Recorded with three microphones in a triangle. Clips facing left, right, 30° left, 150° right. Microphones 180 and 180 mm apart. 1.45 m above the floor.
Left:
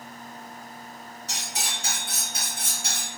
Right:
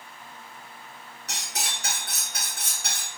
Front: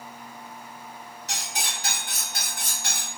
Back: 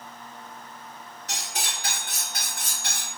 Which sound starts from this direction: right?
Cutlery clinking, at 1.3 s.